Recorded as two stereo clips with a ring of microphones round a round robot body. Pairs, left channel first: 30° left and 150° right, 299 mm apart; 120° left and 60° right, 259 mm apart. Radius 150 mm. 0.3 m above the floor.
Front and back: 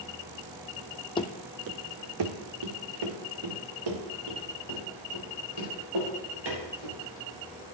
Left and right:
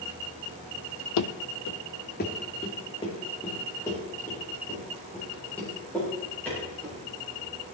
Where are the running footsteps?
100° left, 0.6 m; by 7.0 s 155° right, 6 m.